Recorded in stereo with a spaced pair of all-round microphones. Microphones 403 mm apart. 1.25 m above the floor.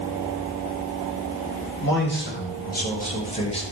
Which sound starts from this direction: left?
A man speaking, at 1.8 s.